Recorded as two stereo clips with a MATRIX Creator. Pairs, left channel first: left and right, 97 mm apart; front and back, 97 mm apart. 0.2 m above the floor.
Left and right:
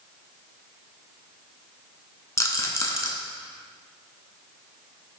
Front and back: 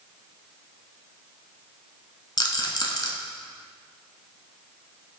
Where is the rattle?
40° left, 0.5 m.